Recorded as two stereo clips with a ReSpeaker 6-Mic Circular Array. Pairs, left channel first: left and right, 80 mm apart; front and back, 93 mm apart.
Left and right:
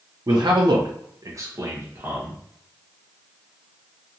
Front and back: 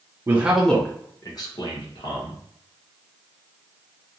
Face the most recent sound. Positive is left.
turn(degrees=-25)